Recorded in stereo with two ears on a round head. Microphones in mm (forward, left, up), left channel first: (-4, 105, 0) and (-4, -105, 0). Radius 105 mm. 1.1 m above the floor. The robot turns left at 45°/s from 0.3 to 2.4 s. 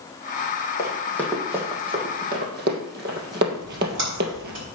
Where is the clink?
I don't hear a clink.